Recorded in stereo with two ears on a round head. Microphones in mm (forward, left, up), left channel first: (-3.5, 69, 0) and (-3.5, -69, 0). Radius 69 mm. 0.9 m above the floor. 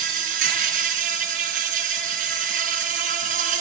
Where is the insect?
55° right (ahead or behind), 5 m.